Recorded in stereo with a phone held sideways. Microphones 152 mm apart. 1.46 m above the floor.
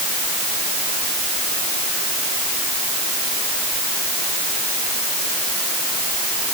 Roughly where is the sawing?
No sawing in this recording.